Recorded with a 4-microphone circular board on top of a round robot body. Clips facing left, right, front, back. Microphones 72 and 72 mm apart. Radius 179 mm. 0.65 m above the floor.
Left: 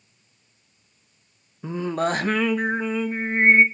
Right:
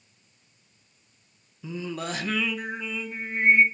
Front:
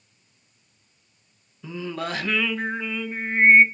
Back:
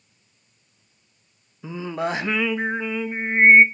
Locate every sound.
1.6 s singing: 115° left, 0.8 m